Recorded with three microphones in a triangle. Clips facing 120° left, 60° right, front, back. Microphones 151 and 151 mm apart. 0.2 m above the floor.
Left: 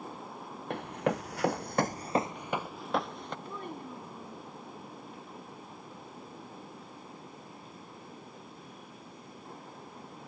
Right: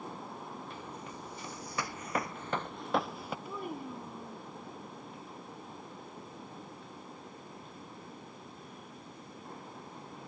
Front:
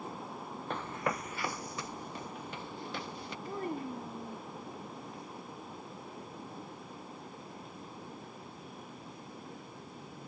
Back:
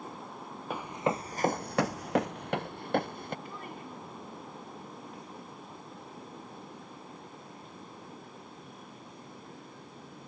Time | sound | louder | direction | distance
0.7 | running footsteps | left 12 dB, back 4 dB | 100° left | ?
3.5 | a child speaking | right 1 dB, front 6 dB | 20° left | ?